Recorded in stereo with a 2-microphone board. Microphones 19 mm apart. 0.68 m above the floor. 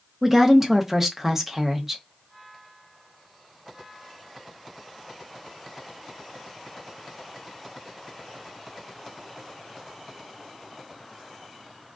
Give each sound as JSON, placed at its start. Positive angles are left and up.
{"t": 0.2, "sound": "a woman speaking", "side_deg": -20, "distance_m": 0.6}